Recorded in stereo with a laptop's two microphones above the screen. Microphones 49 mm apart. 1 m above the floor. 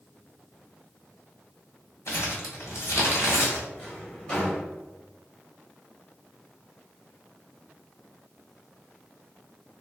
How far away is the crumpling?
About 1.2 m.